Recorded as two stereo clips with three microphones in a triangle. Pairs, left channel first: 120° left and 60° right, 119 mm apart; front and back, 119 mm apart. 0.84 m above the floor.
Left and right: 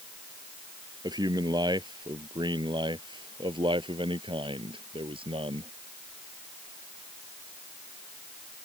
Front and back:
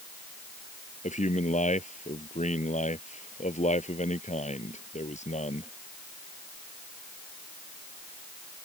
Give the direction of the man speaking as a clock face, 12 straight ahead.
12 o'clock.